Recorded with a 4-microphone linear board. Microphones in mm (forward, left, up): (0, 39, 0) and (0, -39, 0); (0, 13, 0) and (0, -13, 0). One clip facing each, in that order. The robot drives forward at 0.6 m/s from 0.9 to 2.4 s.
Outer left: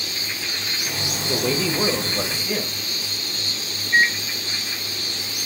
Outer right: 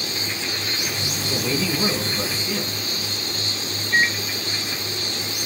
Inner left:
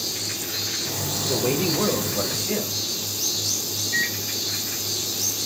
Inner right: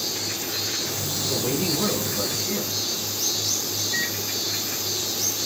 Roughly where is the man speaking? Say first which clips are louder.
Outer left 2 dB, inner left 3 dB; left.